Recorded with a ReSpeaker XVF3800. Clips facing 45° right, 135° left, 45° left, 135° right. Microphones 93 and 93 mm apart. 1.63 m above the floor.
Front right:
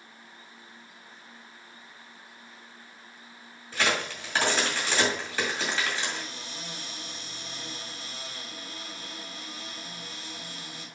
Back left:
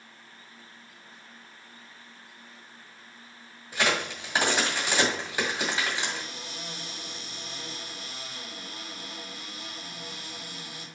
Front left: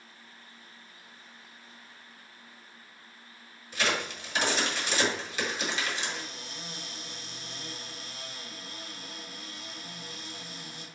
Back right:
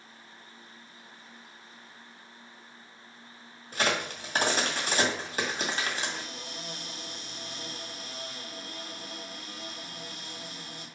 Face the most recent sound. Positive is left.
turn(degrees=-150)